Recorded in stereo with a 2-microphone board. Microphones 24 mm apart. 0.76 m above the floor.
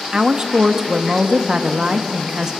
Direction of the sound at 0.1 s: 30° right (ahead or behind).